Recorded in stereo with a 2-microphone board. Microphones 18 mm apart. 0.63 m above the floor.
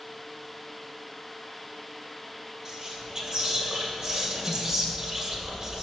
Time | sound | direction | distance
2.6 | whispering | 35° right (ahead or behind) | 2.5 m